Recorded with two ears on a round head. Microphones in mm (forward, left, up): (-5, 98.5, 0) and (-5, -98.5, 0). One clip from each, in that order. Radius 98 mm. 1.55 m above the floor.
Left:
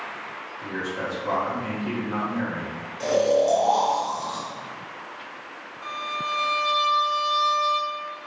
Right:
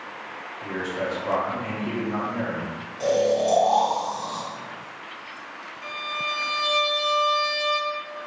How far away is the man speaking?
About 0.7 m.